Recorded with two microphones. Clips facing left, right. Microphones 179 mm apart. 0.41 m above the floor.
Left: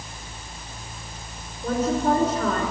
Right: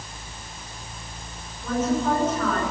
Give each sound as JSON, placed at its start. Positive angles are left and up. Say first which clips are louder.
{"t": 1.6, "sound": "a woman speaking", "louder": "left 1 dB", "side_deg": 35, "distance_m": 5.5}